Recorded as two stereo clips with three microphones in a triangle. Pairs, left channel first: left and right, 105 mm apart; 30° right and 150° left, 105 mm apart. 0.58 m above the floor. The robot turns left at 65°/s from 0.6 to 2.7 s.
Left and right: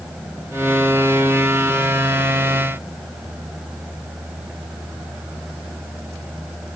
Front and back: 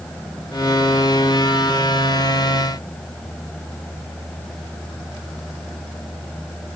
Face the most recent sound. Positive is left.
No sound to turn to.